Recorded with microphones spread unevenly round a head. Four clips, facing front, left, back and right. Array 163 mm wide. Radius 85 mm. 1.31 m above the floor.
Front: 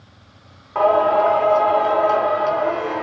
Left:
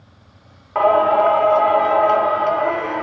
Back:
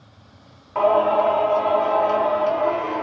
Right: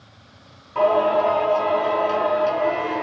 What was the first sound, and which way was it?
Singing, 75° left.